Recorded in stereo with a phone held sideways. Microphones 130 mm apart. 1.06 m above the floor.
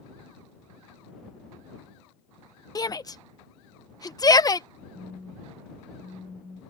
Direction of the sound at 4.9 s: Centre (ahead or behind).